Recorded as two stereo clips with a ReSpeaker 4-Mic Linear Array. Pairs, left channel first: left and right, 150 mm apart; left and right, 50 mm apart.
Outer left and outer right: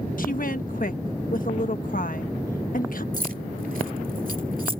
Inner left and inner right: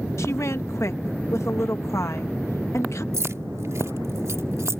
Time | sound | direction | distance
0.2 | a woman speaking | 75° left (ahead or behind) | ?
3.1 | keys jangling | 75° right (ahead or behind) | ?